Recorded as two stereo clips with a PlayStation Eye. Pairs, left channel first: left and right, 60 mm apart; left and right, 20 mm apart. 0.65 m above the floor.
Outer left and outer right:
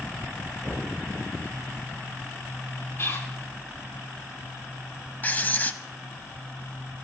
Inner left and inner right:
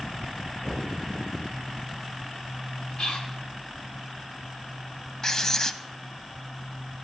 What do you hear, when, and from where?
0.6 s knocking: 35° left (ahead or behind), 5 m
3.0 s whispering: 50° left (ahead or behind), 3 m
5.2 s writing: 30° left (ahead or behind), 0.6 m